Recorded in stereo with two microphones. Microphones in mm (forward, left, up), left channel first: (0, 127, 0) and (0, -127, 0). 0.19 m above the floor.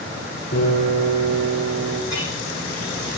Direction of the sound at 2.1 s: 85° left.